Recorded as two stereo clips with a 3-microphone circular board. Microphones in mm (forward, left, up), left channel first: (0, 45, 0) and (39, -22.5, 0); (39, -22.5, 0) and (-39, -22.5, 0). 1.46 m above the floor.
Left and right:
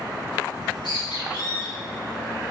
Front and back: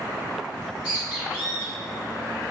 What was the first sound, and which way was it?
A bird, 110° left.